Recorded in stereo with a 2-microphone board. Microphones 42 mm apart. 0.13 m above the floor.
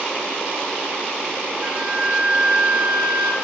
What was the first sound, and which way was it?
A flute, 20° right (ahead or behind).